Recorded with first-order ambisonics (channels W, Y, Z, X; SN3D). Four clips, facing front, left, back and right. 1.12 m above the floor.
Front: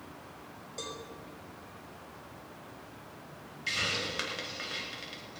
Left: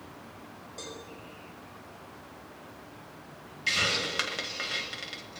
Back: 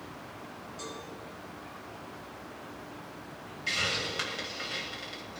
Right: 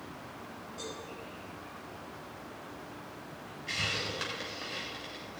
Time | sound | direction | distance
0.8 | a cowbell | 25° left | 5.5 m
3.7 | a hiss | 85° left | 2 m